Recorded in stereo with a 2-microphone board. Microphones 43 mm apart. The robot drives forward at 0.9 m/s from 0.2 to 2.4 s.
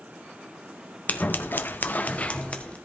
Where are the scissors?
40° left (ahead or behind), 0.8 m; by 2.8 s 30° left (ahead or behind), 1.0 m.